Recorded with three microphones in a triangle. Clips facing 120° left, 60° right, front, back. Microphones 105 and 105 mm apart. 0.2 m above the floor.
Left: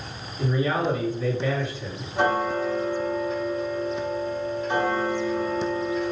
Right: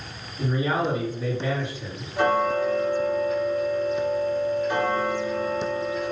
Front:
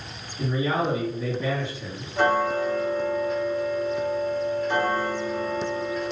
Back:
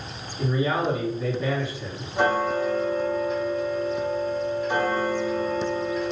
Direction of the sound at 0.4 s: 115° right.